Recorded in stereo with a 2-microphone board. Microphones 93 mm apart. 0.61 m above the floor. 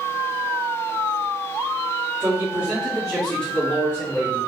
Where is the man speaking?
20° right (ahead or behind), 1.6 m; by 4.4 s 35° left (ahead or behind), 1.6 m.